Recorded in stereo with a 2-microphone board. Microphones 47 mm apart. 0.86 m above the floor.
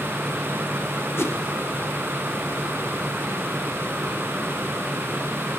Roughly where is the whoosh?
Left.